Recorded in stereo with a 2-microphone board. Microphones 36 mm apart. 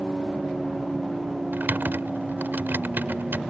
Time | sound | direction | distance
1.5 | typing on a keyboard | 65° right (ahead or behind) | ?